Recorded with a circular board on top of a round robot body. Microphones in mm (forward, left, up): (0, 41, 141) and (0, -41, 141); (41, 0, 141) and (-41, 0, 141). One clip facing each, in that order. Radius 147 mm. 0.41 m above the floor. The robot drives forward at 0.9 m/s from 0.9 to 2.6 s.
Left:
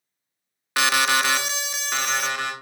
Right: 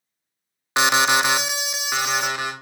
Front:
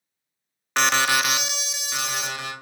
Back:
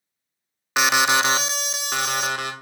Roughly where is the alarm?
Right.